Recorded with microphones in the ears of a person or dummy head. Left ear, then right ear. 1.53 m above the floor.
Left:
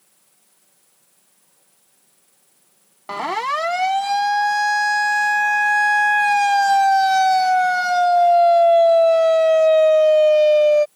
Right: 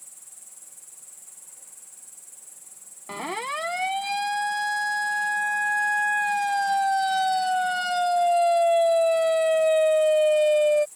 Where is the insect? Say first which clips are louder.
Right 13 dB; 60° right (ahead or behind).